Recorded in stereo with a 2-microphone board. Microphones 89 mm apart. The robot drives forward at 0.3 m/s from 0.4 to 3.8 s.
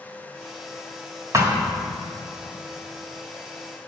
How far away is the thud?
About 1.5 m.